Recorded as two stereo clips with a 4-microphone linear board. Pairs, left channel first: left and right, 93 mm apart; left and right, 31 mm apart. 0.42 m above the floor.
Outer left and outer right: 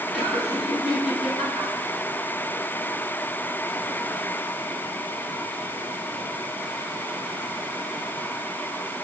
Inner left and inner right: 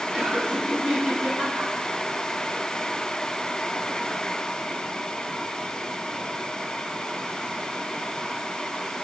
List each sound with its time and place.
0.1 s laughter: 5° right (ahead or behind), 4 m